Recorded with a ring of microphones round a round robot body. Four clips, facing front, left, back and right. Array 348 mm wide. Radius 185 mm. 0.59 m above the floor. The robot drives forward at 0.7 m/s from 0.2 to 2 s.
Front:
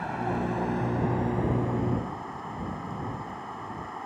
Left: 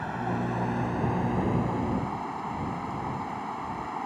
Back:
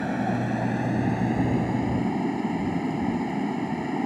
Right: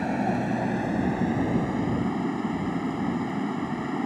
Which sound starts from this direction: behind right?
Running water, at 0.0 s.